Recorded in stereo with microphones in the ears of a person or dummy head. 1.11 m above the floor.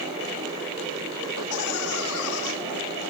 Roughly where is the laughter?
Left.